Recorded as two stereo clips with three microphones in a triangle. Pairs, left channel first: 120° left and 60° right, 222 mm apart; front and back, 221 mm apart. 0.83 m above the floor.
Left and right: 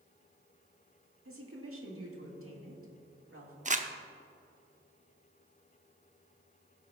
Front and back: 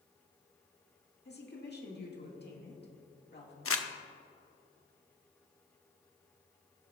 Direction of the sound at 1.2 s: 45° right.